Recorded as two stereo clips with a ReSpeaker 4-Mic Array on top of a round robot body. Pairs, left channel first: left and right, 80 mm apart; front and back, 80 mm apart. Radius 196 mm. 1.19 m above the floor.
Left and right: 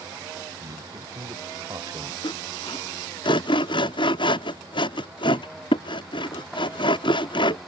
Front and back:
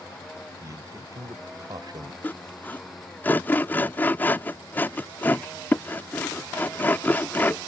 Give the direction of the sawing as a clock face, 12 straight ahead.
10 o'clock.